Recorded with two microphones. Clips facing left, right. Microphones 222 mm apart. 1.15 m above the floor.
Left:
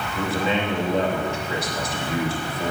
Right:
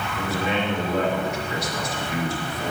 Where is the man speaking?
30° left (ahead or behind), 3 m.